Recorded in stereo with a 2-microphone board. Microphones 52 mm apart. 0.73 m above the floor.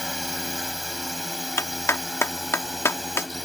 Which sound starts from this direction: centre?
A drone, at 0.0 s.